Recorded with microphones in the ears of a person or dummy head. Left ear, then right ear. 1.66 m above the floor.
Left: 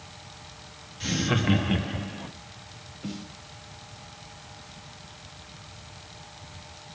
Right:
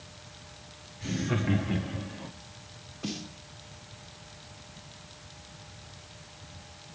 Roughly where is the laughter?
Left.